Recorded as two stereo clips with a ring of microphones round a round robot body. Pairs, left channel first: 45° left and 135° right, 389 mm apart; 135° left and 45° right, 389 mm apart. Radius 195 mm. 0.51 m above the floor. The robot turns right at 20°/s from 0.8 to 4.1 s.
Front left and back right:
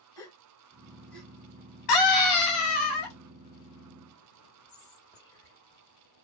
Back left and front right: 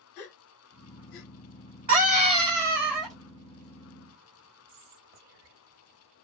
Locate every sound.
0.2 s a gasp: 125° left, 0.7 m; by 1.3 s 135° left, 0.7 m
1.9 s a scream: 40° left, 2 m; by 3.2 s 65° left, 2 m
4.7 s whispering: 35° right, 1.8 m